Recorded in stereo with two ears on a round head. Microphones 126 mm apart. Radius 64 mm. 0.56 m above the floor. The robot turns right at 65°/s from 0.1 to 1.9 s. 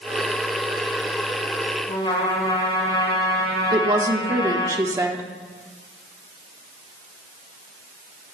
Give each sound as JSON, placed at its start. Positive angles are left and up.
{"t": 1.9, "sound": "a trumpet", "side_deg": 40, "distance_m": 3.5}
{"t": 3.7, "sound": "a woman speaking", "side_deg": -25, "distance_m": 1.1}